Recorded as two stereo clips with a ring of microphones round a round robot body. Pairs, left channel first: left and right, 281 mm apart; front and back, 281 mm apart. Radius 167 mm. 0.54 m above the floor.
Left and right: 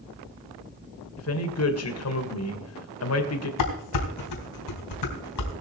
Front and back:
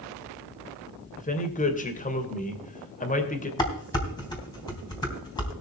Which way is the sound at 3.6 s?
75° left.